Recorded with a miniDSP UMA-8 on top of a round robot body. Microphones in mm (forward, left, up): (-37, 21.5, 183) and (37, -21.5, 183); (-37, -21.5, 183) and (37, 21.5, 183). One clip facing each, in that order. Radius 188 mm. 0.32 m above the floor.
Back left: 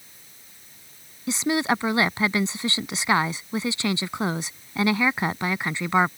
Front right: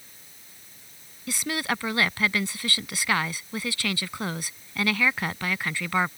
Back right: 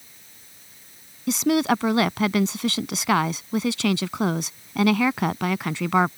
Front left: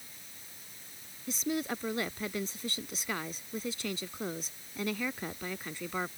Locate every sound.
1.3 s a woman speaking: 145° right